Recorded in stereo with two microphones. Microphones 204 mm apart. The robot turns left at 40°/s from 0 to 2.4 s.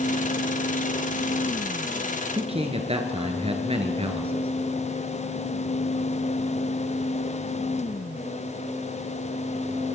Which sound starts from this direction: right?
A man speaking, at 2.3 s.